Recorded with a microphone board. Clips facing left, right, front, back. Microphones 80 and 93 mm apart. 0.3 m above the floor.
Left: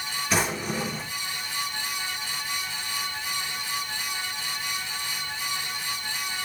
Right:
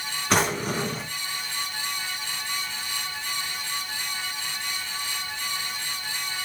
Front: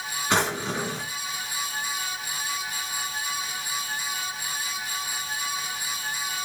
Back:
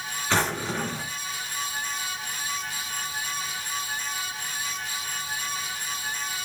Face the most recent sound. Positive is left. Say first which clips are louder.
# right 3 dB, front 1 dB
turn(degrees=-70)